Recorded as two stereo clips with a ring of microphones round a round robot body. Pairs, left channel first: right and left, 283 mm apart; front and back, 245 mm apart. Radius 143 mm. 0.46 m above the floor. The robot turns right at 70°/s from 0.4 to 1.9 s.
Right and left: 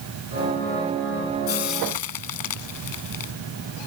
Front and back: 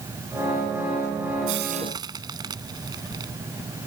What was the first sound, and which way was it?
Frying, 135° right.